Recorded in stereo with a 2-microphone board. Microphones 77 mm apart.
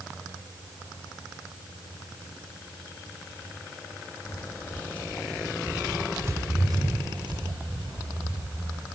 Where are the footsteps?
35° left (ahead or behind), 2.5 m; by 8.8 s 85° right, 3.5 m.